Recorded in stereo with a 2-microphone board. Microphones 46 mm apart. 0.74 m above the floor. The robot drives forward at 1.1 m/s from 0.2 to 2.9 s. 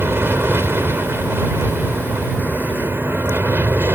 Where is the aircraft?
60° right (ahead or behind).